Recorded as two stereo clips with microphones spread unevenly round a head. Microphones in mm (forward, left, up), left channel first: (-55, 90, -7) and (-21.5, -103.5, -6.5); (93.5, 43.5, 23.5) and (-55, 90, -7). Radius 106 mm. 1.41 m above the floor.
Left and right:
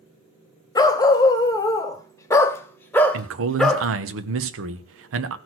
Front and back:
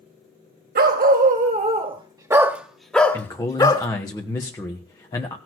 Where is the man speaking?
95° right, 1.2 m.